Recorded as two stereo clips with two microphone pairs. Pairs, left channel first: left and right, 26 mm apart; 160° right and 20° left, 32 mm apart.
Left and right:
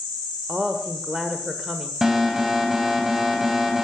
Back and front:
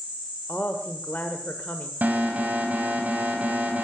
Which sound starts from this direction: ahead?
An alarm, at 2.0 s.